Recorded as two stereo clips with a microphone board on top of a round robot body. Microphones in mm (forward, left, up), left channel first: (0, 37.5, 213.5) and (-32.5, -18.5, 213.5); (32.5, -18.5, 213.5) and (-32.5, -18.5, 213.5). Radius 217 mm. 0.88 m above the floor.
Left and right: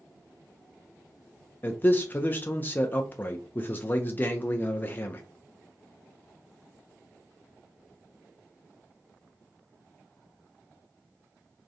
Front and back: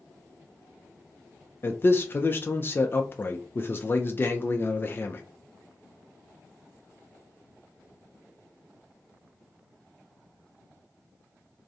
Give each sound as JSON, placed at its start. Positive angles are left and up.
{"t": 1.6, "sound": "a man speaking", "azimuth_deg": 25, "distance_m": 0.5}